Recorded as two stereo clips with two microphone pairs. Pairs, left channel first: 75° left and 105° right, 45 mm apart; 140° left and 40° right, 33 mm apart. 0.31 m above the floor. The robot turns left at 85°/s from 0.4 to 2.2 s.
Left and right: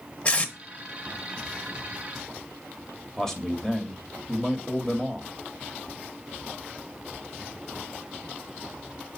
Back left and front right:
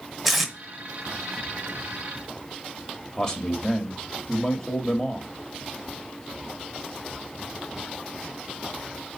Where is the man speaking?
140° left, 1.0 m.